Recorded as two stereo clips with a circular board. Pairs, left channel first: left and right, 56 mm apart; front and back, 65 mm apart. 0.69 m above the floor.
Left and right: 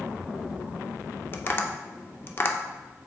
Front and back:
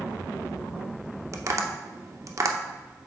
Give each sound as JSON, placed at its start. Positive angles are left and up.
{"t": 1.3, "sound": "tapping", "azimuth_deg": 140, "distance_m": 0.5}